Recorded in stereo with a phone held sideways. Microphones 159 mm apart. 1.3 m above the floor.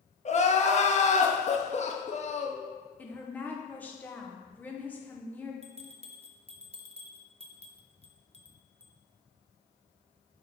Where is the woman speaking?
10° left (ahead or behind), 1.1 m.